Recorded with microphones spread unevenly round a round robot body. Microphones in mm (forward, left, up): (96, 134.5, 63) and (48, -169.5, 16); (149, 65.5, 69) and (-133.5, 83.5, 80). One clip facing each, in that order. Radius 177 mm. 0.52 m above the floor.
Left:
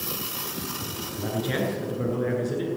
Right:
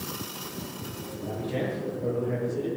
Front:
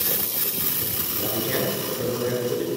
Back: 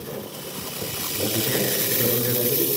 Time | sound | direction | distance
1.2 | a man speaking | 110° left | 7 m